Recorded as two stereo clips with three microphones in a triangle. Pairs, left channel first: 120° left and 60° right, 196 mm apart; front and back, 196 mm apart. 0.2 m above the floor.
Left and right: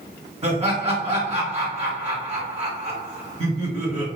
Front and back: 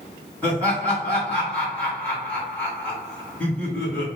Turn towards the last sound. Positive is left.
turn(degrees=-75)